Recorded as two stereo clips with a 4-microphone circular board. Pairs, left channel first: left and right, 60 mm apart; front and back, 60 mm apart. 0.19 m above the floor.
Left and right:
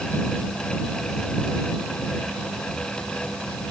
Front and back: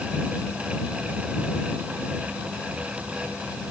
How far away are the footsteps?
I don't hear footsteps.